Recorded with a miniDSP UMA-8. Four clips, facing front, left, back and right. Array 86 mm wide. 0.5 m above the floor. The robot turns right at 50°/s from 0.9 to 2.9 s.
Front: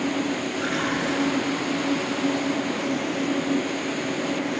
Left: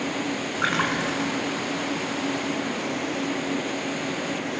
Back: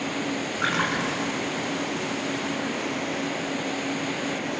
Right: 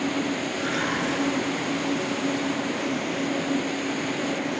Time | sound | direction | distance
0.6 | a splash | 120° left | 4.5 m